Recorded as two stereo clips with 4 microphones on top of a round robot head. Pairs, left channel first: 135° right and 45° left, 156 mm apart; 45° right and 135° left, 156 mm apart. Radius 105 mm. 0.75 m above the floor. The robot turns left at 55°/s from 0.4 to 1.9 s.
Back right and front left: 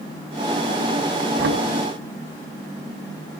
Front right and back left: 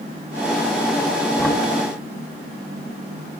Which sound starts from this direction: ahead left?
Knocking, at 1.4 s.